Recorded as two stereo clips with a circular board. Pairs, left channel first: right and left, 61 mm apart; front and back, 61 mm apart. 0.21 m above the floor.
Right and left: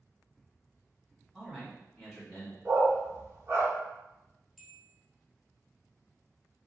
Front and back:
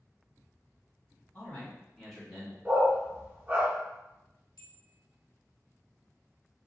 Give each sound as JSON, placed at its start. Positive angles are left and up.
{"t": 1.3, "sound": "a man speaking", "azimuth_deg": 10, "distance_m": 1.5}
{"t": 2.6, "sound": "a dog barking", "azimuth_deg": 120, "distance_m": 0.9}
{"t": 4.6, "sound": "a bell", "azimuth_deg": 0, "distance_m": 0.7}